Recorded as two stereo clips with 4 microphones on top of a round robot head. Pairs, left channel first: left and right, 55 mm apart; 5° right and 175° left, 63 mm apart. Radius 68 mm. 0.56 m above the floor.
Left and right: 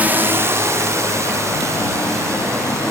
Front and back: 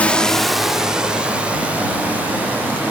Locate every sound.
0.0 s a drone: 60° right; by 2.9 s 120° right